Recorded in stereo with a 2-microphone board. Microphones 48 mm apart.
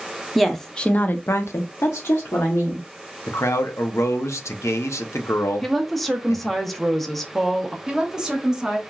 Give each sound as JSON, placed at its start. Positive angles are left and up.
{"t": 0.3, "sound": "a woman speaking", "side_deg": 0, "distance_m": 0.7}
{"t": 3.3, "sound": "a man speaking", "side_deg": 80, "distance_m": 0.5}
{"t": 5.6, "sound": "a woman speaking", "side_deg": 5, "distance_m": 0.6}
{"t": 7.9, "sound": "a woman speaking", "side_deg": -10, "distance_m": 1.1}